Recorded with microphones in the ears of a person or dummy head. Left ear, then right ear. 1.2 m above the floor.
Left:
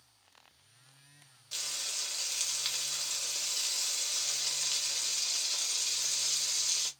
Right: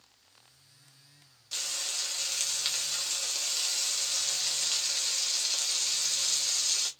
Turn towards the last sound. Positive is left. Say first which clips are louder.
# right 3 dB
turn(degrees=0)  # may be behind; listen again after turning